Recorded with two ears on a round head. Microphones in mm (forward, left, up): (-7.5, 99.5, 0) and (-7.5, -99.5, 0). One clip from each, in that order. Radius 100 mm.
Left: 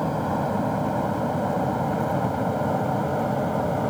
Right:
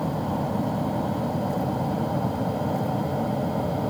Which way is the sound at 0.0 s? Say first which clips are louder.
Left 3 dB; 65° left (ahead or behind).